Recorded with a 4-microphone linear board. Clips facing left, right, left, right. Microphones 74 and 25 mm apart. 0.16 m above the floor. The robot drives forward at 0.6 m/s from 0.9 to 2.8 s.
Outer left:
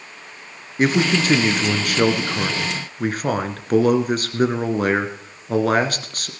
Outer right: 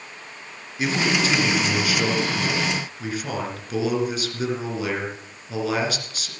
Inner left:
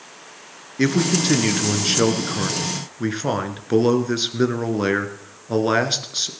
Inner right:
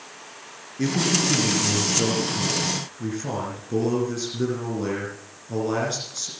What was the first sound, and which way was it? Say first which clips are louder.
A man speaking: outer left 4 dB, inner left 3 dB; 45° left (ahead or behind).